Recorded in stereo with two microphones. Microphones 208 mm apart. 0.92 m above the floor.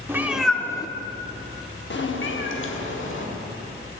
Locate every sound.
0.1 s a cat meowing: 10° right (ahead or behind), 0.7 m; by 4.0 s 55° left (ahead or behind), 1.6 m